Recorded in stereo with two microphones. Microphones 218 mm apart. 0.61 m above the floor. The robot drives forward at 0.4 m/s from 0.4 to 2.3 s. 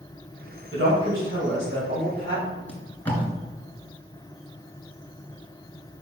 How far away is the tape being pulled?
About 2.5 m.